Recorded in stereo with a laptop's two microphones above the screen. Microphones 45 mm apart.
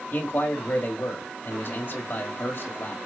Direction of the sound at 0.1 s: 50° left (ahead or behind).